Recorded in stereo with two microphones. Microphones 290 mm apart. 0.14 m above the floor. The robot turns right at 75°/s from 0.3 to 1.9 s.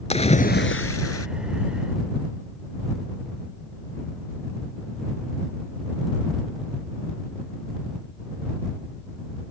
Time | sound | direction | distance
0.1 | a splash | 25° left | ?